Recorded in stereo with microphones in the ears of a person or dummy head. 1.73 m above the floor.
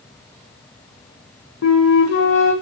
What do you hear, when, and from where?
1.6 s a flute: 75° left (ahead or behind), 1.6 m